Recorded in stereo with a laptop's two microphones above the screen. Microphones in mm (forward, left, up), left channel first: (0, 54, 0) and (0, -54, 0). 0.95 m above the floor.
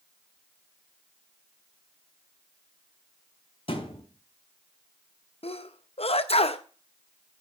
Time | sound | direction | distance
3.7 | a thud | 55° left (ahead or behind) | 3 m
5.4 | a sneeze | 65° left (ahead or behind) | 0.7 m